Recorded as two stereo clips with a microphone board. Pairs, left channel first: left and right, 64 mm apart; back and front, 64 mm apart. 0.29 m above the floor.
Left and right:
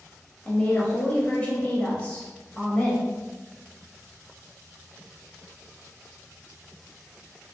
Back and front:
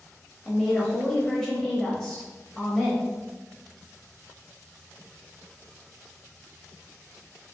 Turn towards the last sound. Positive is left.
turn(degrees=115)